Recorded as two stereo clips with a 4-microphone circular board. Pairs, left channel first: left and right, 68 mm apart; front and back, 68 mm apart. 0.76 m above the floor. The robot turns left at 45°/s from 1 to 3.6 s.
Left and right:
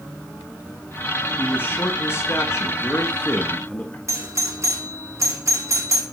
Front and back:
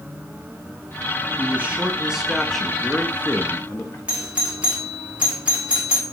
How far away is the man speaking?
About 1.3 m.